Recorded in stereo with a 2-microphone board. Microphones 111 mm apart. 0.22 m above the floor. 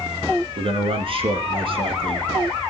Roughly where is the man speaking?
Right.